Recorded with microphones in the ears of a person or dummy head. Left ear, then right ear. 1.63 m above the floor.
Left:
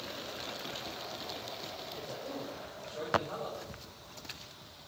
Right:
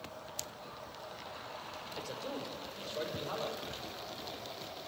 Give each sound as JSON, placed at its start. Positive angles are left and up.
{"t": 1.9, "sound": "a man speaking", "side_deg": -50, "distance_m": 5.5}